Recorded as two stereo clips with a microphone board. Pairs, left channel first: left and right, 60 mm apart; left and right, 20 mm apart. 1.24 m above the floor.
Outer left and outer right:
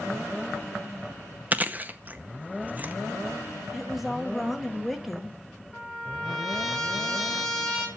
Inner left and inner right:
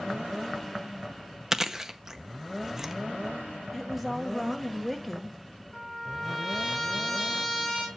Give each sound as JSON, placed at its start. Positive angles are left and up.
{"t": 1.5, "sound": "chewing", "side_deg": -30, "distance_m": 0.7}
{"t": 3.7, "sound": "a woman speaking", "side_deg": -5, "distance_m": 1.8}
{"t": 5.7, "sound": "a trumpet", "side_deg": 0, "distance_m": 3.5}